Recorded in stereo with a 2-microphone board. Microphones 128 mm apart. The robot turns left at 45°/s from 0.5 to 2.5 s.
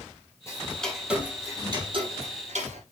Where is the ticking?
20° left (ahead or behind), 2 m; by 2.8 s 65° right (ahead or behind), 2 m.